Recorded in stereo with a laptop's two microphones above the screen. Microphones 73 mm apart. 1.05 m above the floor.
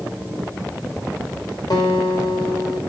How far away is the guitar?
About 1.0 m.